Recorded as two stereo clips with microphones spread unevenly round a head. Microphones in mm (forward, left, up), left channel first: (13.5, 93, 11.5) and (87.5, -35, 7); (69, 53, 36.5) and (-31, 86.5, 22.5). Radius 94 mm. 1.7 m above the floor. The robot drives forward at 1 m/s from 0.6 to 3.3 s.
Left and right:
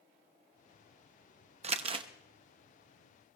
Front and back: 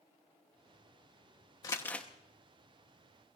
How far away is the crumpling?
About 0.9 m.